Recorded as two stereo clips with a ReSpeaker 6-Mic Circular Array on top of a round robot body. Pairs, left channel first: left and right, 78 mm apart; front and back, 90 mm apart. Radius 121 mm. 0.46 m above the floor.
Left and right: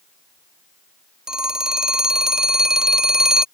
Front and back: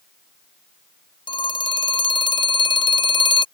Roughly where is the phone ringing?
Ahead.